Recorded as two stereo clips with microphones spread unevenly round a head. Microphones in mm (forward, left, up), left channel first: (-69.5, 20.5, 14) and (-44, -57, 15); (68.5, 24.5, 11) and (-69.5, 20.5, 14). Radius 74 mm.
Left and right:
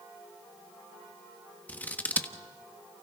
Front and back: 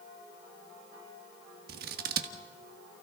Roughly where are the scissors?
Behind.